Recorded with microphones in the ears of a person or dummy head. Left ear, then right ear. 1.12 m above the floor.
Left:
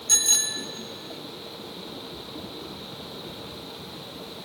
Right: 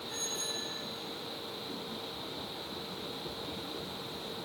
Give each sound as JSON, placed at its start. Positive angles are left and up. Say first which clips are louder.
{"t": 0.1, "sound": "a bicycle bell", "louder": "left 15 dB", "side_deg": 80, "distance_m": 2.0}